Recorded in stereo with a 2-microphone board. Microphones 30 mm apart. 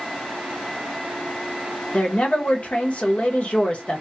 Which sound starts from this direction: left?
A woman speaking, at 1.9 s.